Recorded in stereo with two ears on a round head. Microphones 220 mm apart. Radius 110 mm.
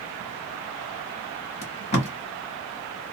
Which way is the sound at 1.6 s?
30° left (ahead or behind).